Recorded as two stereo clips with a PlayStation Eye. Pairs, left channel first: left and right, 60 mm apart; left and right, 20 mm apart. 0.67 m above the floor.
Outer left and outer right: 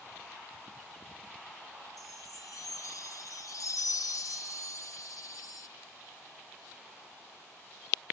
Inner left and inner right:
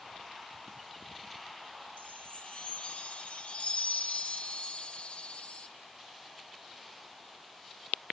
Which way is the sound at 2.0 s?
70° left (ahead or behind).